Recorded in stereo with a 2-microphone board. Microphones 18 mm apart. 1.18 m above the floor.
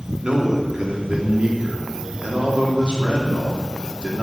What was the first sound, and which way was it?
A man speaking, 65° right (ahead or behind).